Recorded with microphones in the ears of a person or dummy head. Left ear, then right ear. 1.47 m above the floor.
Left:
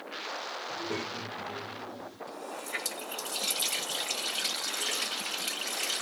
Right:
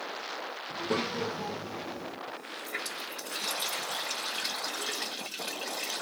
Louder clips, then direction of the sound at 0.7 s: Right 6 dB; 45° right (ahead or behind).